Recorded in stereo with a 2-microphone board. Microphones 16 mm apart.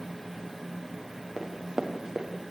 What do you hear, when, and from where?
1.4 s running footsteps: 45° right (ahead or behind), 5 m